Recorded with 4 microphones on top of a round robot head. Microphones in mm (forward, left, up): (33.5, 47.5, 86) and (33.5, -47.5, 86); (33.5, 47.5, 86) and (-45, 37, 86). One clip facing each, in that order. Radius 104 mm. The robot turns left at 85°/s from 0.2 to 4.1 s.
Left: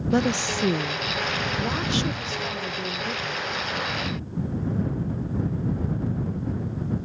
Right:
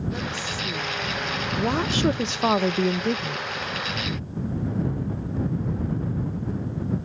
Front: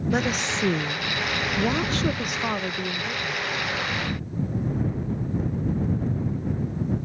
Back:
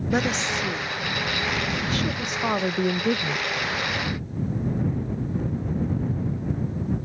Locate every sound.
0.1 s a woman speaking: 100° left; by 3.5 s 175° right